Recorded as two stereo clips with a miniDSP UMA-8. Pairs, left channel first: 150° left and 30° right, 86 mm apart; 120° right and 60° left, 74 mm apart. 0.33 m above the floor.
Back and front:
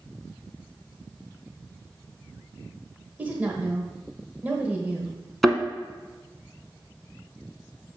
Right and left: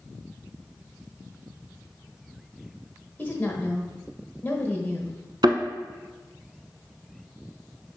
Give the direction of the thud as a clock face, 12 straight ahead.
10 o'clock.